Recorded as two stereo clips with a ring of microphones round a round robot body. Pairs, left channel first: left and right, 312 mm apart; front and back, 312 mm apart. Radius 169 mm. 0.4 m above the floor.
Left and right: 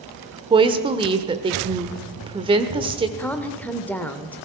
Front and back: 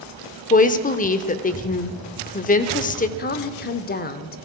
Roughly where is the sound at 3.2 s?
Ahead.